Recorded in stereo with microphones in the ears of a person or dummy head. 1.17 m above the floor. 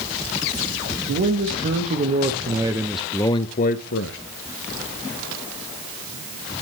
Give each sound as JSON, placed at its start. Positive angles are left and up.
{"t": 1.1, "sound": "a man speaking", "side_deg": -50, "distance_m": 1.4}